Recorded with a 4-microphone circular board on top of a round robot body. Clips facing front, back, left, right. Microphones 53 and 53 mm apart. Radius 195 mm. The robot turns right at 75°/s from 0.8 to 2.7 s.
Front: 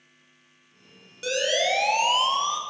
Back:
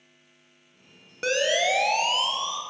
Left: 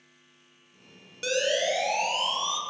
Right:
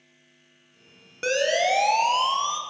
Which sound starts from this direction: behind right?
A siren, at 1.2 s.